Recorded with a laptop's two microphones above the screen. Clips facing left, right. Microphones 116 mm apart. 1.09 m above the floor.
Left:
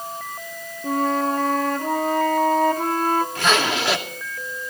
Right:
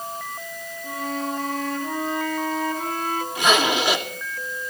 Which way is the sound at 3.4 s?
15° right (ahead or behind).